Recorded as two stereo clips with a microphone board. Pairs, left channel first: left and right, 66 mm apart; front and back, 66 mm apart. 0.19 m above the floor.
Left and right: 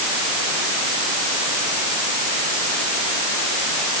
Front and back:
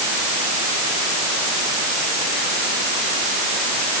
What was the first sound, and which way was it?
Only background noise.